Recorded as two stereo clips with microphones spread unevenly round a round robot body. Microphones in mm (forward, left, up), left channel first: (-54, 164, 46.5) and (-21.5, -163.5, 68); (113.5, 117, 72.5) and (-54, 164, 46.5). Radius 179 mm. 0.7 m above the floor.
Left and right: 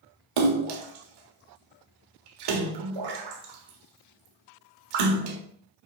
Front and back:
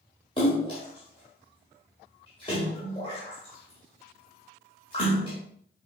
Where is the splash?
90° right, 1.3 m.